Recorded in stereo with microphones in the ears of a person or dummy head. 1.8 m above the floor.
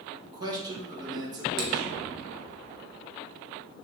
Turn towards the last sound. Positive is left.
turn(degrees=-70)  # may be behind; listen again after turning